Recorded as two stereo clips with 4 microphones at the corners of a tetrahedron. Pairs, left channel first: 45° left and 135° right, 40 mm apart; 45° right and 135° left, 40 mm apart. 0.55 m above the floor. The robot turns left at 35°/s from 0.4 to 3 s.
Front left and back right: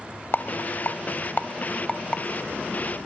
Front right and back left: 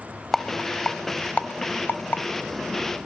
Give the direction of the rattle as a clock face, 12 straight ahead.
11 o'clock.